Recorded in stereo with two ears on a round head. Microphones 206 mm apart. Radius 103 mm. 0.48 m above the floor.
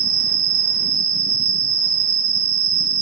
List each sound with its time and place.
0.0 s an insect: 55° right (ahead or behind), 1.9 m